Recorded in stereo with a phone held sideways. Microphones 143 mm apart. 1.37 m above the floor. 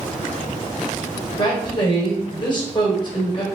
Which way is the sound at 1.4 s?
30° left (ahead or behind).